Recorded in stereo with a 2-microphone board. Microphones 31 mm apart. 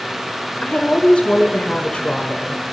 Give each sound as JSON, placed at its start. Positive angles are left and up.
{"t": 0.6, "sound": "a woman speaking", "side_deg": 40, "distance_m": 1.2}